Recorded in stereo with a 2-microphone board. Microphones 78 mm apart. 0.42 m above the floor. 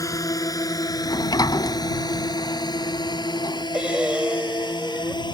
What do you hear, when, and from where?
0.0 s a drone: 45° left (ahead or behind); by 5.3 s 70° left (ahead or behind)
1.1 s a sliding door: 60° left (ahead or behind)
3.7 s breathing: 15° right (ahead or behind)